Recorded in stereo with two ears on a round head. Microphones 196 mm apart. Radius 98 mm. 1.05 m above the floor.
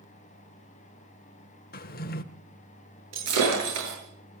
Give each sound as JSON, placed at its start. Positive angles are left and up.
{"t": 1.7, "sound": "a drawer", "side_deg": 45, "distance_m": 0.9}
{"t": 3.1, "sound": "breaking glass", "side_deg": -85, "distance_m": 9.0}